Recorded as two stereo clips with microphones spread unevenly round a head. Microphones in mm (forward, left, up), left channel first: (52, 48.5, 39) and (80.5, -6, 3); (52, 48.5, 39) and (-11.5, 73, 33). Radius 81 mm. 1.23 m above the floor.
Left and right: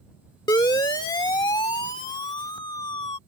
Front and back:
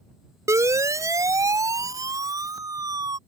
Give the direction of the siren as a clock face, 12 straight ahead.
8 o'clock.